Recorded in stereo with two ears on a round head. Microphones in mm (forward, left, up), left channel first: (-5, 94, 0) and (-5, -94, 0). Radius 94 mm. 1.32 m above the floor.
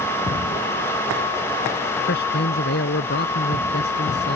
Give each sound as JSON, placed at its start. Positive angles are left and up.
{"t": 2.1, "sound": "a man speaking", "side_deg": 55}